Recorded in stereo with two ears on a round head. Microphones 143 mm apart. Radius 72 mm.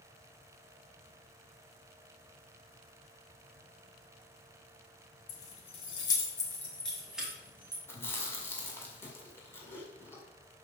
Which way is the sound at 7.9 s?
15° left (ahead or behind).